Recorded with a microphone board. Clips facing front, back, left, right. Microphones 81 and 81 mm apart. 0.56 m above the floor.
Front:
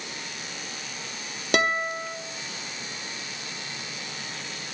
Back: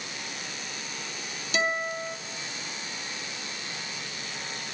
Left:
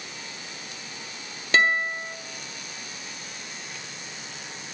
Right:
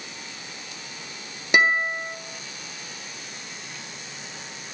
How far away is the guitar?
About 1.0 m.